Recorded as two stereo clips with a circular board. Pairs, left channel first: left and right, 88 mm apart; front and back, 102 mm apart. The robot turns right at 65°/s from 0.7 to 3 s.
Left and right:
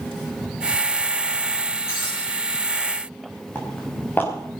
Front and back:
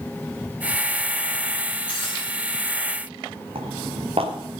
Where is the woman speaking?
No woman speaking in this recording.